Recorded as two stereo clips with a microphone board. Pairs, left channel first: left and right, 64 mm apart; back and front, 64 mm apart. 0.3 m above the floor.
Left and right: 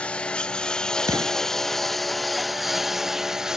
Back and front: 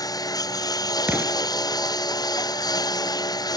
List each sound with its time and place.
0.0 s a lawn mower: 165° left; by 3.6 s 170° right
1.1 s an explosion: 70° right